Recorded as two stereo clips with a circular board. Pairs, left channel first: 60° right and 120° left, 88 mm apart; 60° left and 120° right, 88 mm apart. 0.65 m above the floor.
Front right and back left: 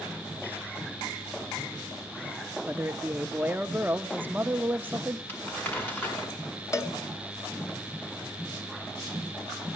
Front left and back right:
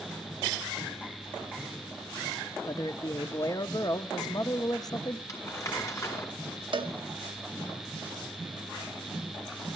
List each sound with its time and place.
2.6 s a man speaking: 60° left, 0.8 m
5.3 s crumpling: 5° left, 7 m
6.7 s a cowbell: 115° right, 1.3 m